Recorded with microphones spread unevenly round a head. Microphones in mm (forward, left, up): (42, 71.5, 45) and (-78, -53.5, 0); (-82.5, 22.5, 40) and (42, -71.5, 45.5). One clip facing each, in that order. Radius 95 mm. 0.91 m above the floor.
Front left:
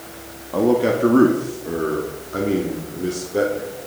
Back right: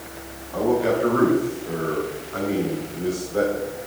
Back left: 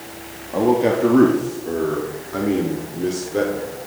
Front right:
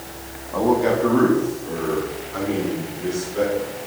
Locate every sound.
0.5 s a man speaking: 75° left, 1.5 m; by 3.7 s 110° left, 3 m